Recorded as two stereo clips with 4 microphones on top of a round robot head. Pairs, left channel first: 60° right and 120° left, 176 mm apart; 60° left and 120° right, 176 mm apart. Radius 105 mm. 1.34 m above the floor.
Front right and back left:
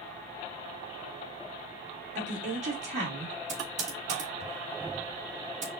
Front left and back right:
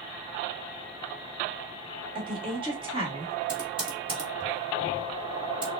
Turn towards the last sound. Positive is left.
turn(degrees=175)